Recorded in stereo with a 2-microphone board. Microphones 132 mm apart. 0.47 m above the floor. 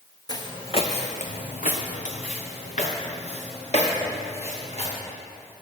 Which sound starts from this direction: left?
Footsteps, at 0.3 s.